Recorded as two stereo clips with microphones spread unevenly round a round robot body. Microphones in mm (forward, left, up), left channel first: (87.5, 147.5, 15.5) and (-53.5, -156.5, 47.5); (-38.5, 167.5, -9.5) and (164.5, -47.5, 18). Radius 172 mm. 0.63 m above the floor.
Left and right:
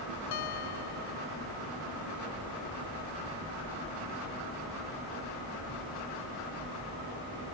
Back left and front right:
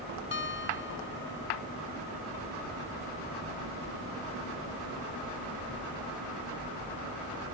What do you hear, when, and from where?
0.3 s a guitar: 85° left